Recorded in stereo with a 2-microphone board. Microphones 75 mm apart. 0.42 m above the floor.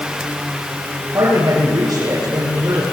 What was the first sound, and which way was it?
A man speaking, 55° right (ahead or behind).